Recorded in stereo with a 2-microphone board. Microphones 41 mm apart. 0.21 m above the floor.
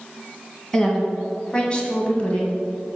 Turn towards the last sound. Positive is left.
turn(degrees=35)  # may be behind; listen again after turning